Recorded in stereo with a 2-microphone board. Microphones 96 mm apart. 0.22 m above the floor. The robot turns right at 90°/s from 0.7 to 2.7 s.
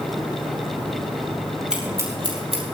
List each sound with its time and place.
1.7 s scissors: 10° right (ahead or behind), 4 m; by 2.6 s 80° right, 4 m